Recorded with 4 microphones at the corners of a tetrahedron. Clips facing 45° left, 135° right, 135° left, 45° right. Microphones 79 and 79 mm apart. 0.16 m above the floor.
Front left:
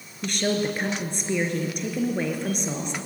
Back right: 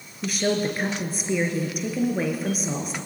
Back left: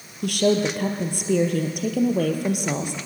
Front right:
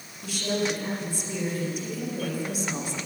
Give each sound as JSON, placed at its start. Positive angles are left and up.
{"t": 0.2, "sound": "a woman speaking", "azimuth_deg": 140, "distance_m": 3.5}